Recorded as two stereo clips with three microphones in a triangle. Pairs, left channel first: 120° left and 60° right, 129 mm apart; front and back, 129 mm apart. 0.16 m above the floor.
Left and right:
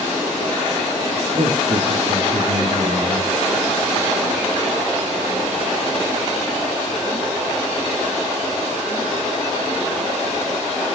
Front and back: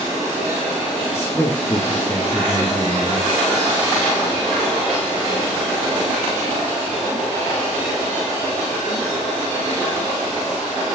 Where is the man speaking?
70° right, 3 m.